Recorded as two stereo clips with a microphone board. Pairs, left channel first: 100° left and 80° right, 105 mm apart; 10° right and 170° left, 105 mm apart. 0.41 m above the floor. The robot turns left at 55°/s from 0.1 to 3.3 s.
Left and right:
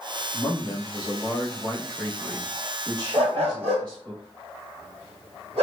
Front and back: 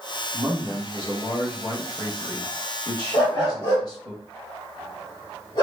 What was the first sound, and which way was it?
A man speaking, 115° left.